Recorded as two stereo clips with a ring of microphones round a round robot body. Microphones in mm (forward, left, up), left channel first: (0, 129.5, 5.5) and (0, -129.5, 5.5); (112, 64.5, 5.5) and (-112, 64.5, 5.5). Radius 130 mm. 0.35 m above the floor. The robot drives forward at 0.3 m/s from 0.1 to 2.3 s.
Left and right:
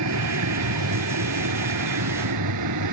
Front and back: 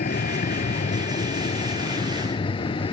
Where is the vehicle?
60° right; by 2.9 s 75° right.